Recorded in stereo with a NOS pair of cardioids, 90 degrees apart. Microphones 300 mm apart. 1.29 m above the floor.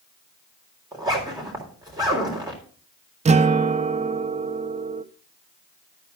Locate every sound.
0.9 s a zipper: 15° right, 3.5 m
3.2 s a guitar: 25° right, 0.6 m